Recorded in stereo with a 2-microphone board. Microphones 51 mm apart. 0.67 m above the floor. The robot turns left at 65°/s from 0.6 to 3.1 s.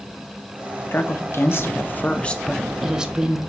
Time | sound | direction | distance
0.9 | a woman speaking | 120° left | 0.7 m